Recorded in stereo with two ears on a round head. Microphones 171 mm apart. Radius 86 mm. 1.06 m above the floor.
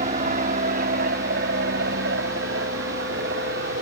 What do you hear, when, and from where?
0.0 s an aircraft: 40° right (ahead or behind); by 3.8 s 55° right (ahead or behind)